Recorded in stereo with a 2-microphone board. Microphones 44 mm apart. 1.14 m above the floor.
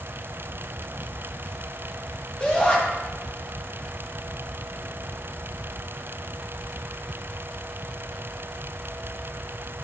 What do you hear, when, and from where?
2.4 s a shout: 20° left (ahead or behind), 5 m